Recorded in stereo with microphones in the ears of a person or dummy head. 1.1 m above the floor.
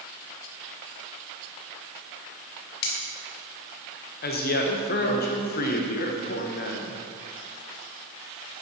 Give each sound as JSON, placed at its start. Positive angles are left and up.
{"t": 2.8, "sound": "cutlery clinking", "side_deg": 55, "distance_m": 1.5}
{"t": 4.2, "sound": "a woman speaking", "side_deg": 45, "distance_m": 1.0}